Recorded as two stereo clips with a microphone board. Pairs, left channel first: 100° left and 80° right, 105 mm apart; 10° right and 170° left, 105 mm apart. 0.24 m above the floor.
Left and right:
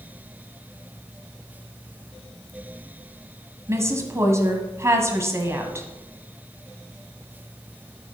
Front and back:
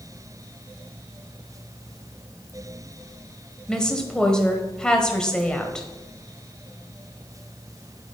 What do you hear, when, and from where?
3.7 s a woman speaking: 85° right, 1.5 m